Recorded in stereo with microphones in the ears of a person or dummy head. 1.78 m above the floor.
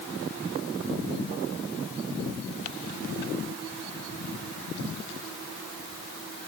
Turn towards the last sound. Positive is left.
No sound to turn to.